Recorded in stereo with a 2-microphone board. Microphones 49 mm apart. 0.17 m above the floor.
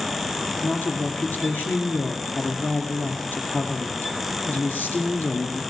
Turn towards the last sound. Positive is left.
turn(degrees=45)  # may be behind; listen again after turning